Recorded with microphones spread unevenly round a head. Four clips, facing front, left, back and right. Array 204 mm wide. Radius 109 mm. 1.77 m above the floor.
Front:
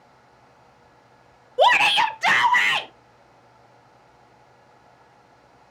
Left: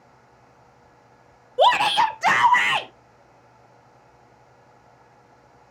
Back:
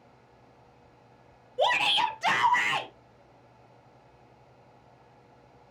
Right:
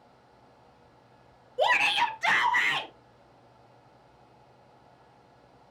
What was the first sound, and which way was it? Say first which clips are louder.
A shout: left 8 dB, front 8 dB; 45° left.